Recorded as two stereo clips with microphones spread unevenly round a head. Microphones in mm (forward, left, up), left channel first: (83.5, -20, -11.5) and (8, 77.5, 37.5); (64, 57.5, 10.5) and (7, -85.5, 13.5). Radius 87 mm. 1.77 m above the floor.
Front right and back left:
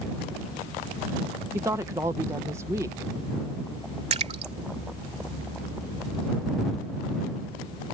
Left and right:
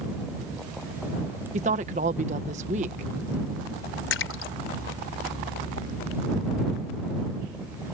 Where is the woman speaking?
165° right.